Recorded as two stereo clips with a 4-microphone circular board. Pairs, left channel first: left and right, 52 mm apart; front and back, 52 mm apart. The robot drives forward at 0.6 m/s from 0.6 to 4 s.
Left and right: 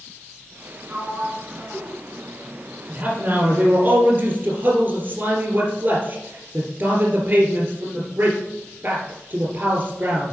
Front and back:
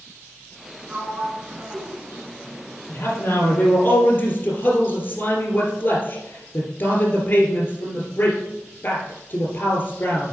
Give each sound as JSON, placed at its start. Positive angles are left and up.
{"t": 0.9, "sound": "a sliding door", "azimuth_deg": -115, "distance_m": 1.1}
{"t": 2.9, "sound": "a man speaking", "azimuth_deg": -40, "distance_m": 3.5}